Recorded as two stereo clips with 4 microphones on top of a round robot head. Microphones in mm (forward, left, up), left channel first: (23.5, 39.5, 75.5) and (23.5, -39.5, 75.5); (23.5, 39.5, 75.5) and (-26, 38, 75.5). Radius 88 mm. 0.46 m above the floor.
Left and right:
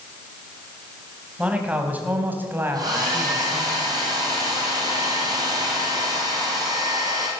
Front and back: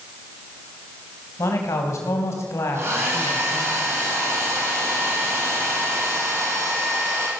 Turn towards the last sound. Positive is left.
turn(degrees=-135)